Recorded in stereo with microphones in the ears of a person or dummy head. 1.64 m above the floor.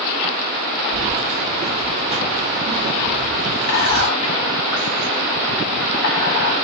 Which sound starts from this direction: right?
Keys jangling, at 0.9 s.